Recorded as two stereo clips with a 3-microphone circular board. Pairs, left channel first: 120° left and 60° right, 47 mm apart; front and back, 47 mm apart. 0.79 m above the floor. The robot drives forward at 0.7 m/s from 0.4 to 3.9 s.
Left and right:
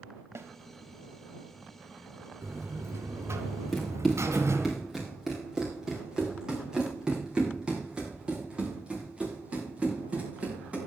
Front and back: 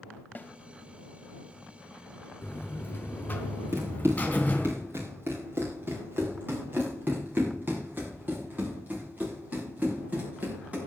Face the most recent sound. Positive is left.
turn(degrees=-125)